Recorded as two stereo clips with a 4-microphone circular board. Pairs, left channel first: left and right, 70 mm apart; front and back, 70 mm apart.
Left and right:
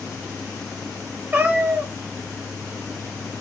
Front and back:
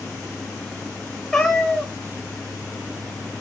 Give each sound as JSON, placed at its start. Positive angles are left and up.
{"t": 1.3, "sound": "a cat meowing", "azimuth_deg": -70, "distance_m": 0.5}